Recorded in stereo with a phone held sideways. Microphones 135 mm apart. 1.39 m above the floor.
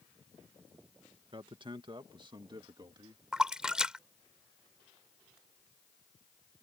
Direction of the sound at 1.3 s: 40° right (ahead or behind).